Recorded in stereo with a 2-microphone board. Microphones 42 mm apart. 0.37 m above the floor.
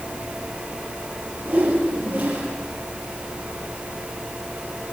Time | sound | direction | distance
1.4 | a whoosh | 55° right (ahead or behind) | 9.5 m